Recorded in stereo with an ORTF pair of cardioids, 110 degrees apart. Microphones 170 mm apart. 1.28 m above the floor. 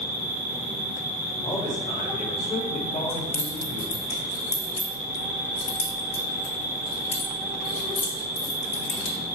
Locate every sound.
0.0 s an insect: 70° right, 2.0 m
1.4 s a man speaking: 40° left, 1.6 m
3.1 s keys jangling: 40° left, 1.5 m